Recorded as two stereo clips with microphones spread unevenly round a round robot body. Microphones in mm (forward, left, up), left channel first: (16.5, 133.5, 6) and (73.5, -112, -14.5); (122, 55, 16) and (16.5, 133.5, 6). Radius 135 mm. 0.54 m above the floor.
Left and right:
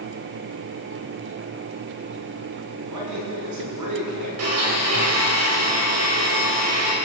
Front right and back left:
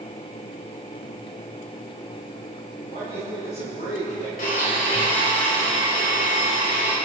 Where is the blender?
65° right, 3 m.